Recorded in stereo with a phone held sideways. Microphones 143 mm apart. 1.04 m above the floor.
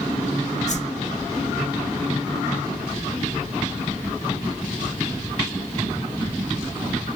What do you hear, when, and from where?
0.7 s a whoosh: 55° left (ahead or behind), 0.6 m